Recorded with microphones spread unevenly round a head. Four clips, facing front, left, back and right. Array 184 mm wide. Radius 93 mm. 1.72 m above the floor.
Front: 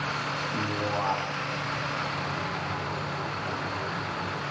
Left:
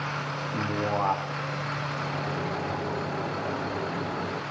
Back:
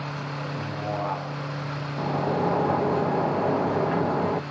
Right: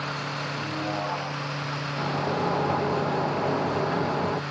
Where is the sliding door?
165° right, 1.1 m.